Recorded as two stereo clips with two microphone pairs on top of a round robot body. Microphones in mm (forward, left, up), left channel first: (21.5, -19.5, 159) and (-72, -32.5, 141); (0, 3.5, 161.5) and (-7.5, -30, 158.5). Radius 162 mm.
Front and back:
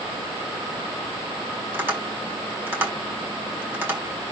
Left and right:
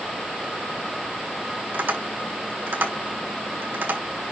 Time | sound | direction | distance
1.7 | tapping | 105° right | 5.5 m